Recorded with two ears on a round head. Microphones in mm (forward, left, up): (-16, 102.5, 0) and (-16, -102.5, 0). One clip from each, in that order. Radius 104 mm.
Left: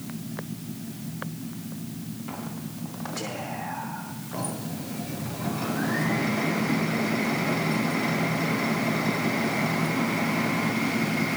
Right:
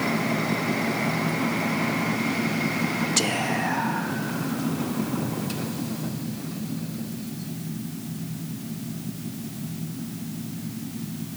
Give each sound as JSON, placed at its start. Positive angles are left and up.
{"t": 3.2, "sound": "whispering", "side_deg": -85, "distance_m": 1.4}